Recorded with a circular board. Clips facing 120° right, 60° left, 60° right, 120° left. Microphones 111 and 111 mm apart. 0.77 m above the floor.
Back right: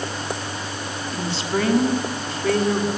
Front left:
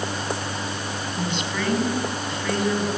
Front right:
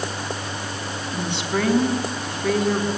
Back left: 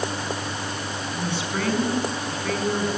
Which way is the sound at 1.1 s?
65° right.